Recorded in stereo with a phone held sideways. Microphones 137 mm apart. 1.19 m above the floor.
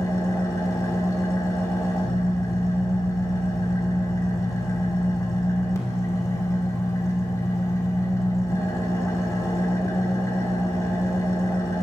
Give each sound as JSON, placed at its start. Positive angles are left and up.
{"t": 0.0, "sound": "an engine running", "side_deg": 20, "distance_m": 2.5}